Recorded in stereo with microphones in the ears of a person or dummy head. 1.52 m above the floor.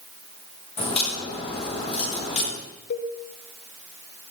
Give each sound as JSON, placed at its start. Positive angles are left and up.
{"t": 0.8, "sound": "a crack", "side_deg": 35, "distance_m": 8.0}
{"t": 2.9, "sound": "a cowbell", "side_deg": 60, "distance_m": 2.5}